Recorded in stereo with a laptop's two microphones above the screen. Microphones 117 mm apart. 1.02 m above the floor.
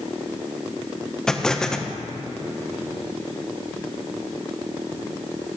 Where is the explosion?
5° left (ahead or behind), 0.5 m.